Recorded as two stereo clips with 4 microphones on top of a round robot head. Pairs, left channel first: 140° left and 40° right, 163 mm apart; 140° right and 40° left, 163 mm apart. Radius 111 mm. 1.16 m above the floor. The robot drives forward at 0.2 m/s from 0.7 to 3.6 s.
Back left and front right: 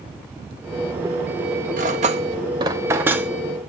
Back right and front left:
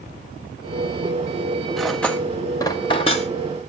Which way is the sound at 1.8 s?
50° right.